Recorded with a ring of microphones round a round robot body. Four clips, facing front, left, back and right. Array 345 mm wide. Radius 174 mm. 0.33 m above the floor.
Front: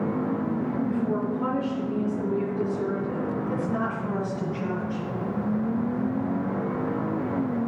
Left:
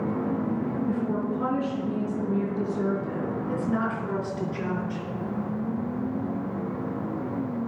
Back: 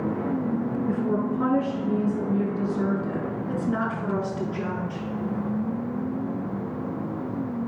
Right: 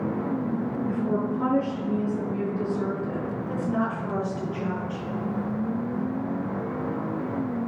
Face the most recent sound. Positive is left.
turn(degrees=165)